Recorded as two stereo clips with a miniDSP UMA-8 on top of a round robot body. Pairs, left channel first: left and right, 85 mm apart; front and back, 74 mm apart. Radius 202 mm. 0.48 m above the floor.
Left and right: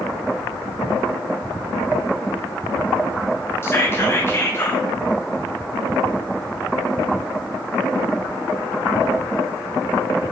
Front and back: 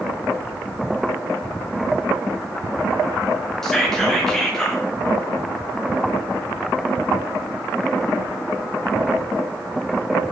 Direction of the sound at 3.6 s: 75° left.